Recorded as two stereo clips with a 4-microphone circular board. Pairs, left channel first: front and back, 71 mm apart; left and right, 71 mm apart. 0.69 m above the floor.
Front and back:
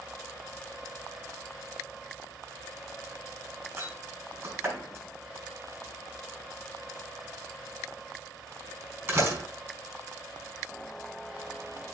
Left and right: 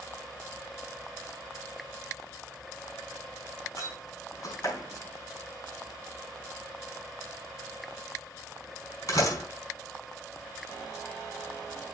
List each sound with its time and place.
3.8 s a door slam: 125° left, 4.5 m